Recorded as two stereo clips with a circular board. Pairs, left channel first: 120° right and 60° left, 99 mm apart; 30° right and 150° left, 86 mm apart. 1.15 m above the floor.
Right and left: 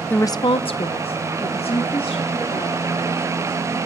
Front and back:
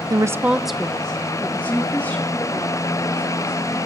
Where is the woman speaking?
170° left, 0.5 m; by 3.8 s 95° right, 4.5 m.